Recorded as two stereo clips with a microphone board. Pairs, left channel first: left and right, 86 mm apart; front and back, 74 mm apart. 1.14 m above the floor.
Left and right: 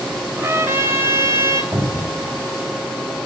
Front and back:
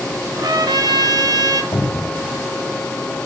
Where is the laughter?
I don't hear laughter.